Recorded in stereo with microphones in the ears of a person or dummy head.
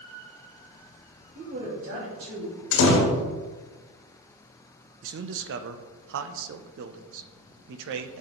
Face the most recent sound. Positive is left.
turn(degrees=-75)  # may be behind; listen again after turning